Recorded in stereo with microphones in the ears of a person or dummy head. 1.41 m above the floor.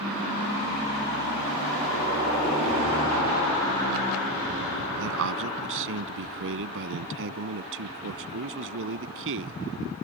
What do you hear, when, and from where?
5.0 s a man speaking: 70° right (ahead or behind)